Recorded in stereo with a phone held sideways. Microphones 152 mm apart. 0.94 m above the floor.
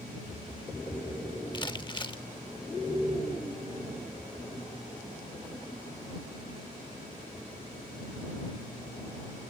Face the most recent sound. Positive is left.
turn(degrees=30)  # may be behind; listen again after turning